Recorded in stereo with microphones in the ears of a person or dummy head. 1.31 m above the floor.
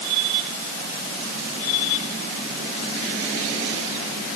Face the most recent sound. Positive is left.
No sound to turn to.